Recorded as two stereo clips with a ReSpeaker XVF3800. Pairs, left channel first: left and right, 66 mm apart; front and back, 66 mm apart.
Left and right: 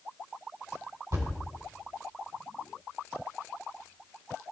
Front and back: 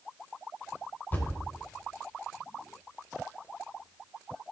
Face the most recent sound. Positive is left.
turn(degrees=-60)